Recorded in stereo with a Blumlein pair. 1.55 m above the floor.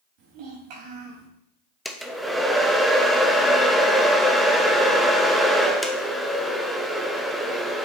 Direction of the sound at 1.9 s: Straight ahead.